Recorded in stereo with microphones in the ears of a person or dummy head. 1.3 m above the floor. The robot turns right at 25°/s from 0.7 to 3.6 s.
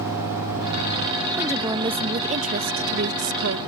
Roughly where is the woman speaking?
Behind.